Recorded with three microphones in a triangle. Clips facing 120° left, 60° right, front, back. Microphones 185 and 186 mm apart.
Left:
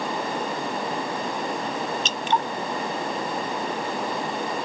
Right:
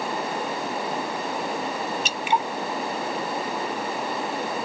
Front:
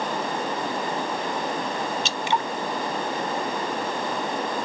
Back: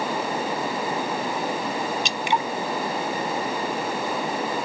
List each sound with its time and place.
2.0 s dripping: 125° right